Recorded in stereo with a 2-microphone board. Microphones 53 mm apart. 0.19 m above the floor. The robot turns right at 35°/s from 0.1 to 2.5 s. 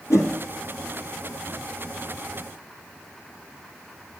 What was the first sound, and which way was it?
A whoosh, 70° left (ahead or behind).